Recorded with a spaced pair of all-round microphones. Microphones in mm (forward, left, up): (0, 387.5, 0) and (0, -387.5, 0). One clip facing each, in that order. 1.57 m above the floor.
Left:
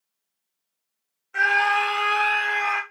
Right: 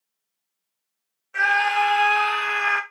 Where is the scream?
15° right (ahead or behind), 1.5 m; by 2.8 s 50° right (ahead or behind), 1.3 m.